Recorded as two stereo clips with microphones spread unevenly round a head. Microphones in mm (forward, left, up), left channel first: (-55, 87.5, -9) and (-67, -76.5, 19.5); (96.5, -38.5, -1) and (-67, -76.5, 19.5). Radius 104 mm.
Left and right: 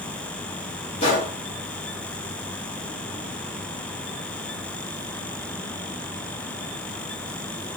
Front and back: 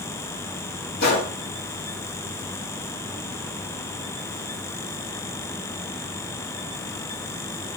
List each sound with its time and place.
1.0 s a gunshot: 35° left, 1.3 m